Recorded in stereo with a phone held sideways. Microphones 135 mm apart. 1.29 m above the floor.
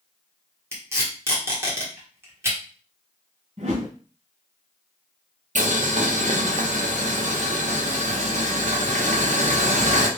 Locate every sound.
0.7 s tape being pulled: 20° right (ahead or behind), 1.2 m
3.6 s a whoosh: 55° right (ahead or behind), 2 m
5.5 s boiling: 65° right (ahead or behind), 0.7 m